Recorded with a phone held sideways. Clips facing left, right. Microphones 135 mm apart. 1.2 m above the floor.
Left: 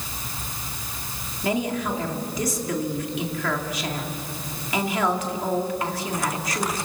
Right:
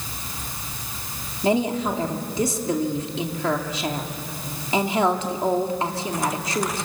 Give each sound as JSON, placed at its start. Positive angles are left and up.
{"t": 1.4, "sound": "a woman speaking", "side_deg": -30, "distance_m": 2.0}